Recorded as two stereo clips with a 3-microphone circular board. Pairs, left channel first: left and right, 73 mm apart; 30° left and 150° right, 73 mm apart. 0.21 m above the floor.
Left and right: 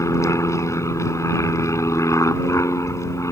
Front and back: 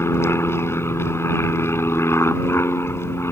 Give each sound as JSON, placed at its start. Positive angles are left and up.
{"t": 0.0, "sound": "an aircraft", "azimuth_deg": 70}